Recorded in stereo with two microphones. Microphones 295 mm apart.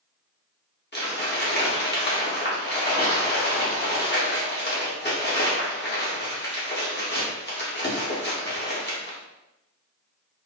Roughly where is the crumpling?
Left.